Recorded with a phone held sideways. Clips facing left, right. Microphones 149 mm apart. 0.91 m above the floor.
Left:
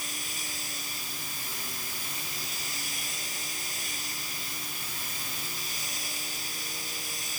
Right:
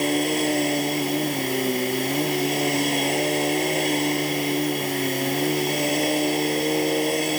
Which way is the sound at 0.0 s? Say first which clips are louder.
Right 23 dB; 70° right (ahead or behind).